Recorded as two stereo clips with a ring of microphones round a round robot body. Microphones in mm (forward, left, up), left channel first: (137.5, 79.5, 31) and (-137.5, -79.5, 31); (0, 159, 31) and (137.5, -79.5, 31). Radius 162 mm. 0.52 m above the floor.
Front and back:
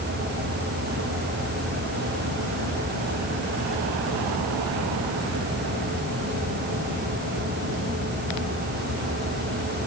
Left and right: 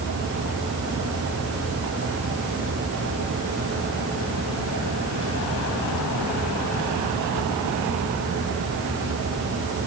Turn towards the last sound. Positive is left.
No sound to turn to.